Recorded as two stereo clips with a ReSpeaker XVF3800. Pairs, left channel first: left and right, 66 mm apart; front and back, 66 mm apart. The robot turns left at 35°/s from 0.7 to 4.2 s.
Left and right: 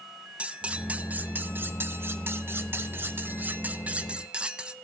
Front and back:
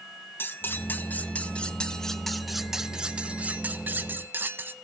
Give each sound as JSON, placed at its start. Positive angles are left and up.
{"t": 0.4, "sound": "cutlery clinking", "azimuth_deg": -30, "distance_m": 0.9}